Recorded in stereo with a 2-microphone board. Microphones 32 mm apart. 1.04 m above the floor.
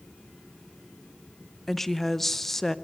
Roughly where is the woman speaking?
Centre.